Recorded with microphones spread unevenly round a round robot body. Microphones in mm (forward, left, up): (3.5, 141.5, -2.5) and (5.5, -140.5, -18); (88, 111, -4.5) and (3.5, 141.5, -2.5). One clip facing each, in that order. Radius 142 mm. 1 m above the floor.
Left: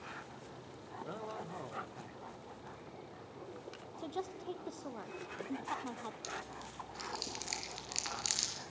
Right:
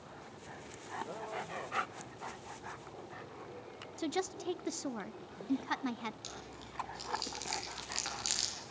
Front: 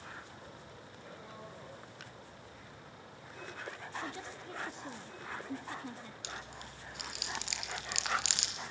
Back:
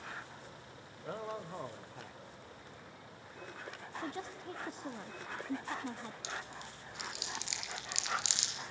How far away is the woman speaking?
About 1.0 m.